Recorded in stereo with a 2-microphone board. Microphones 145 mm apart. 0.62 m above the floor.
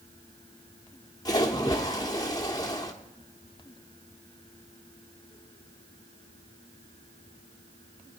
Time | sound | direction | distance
1.2 | a splash | 25° left (ahead or behind) | 1.2 m